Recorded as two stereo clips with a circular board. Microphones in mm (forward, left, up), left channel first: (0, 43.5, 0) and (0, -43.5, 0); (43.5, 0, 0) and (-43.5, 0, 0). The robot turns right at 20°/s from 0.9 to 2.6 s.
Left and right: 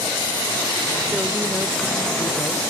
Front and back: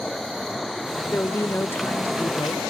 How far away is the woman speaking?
About 0.9 m.